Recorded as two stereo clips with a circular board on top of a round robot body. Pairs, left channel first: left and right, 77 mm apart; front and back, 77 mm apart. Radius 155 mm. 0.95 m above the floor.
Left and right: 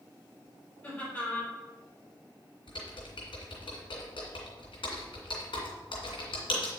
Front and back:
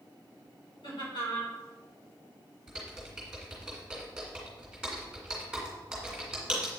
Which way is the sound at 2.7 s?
100° left.